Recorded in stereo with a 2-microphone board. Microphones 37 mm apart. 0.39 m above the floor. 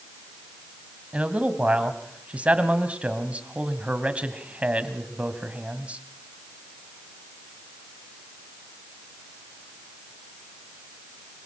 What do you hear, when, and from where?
1.1 s a man speaking: 30° right (ahead or behind), 2 m